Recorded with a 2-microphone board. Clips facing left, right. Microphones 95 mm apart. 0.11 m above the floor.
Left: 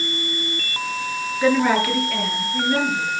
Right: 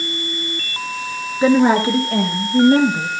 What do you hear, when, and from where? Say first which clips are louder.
1.4 s a woman speaking: right 5 dB; 25° right (ahead or behind), 1.8 m; by 3.1 s 50° right (ahead or behind), 3.5 m